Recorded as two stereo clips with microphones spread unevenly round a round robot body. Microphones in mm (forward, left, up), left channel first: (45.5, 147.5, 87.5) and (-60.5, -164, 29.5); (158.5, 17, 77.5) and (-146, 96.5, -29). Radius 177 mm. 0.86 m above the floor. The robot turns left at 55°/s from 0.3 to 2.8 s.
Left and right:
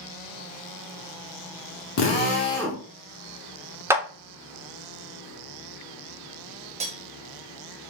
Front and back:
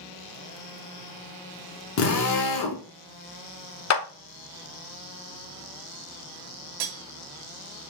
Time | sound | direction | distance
2.0 | a drill | 25° left | 0.8 m
3.9 | a clap | 50° right | 0.6 m
6.8 | cutlery clinking | straight behind | 0.5 m